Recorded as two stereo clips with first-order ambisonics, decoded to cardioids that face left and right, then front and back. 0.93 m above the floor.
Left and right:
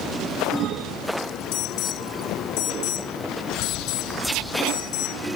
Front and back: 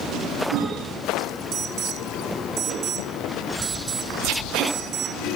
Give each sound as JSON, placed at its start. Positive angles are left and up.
{"t": 1.5, "sound": "an alarm", "azimuth_deg": 120}